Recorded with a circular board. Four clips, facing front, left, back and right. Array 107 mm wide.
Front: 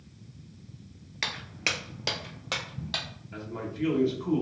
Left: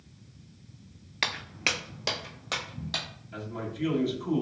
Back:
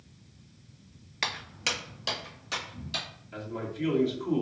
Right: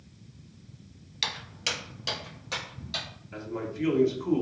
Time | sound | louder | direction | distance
1.2 | footsteps | left 3 dB, even | 90° left | 0.5 m
3.3 | a man speaking | right 2 dB, back 1 dB | 80° right | 1.0 m